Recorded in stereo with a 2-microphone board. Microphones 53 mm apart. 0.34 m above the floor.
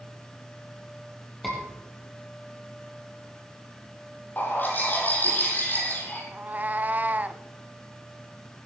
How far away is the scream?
About 8 m.